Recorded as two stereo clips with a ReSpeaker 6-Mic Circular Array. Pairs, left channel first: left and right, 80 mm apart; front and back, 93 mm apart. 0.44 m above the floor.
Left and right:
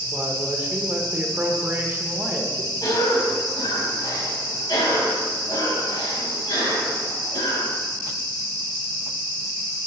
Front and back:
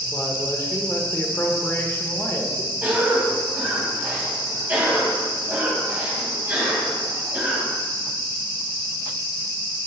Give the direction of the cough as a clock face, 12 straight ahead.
8 o'clock.